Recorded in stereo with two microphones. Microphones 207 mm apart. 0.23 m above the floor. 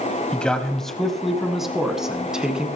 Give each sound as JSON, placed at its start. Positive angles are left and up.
{"t": 0.3, "sound": "a man speaking", "side_deg": 5, "distance_m": 1.2}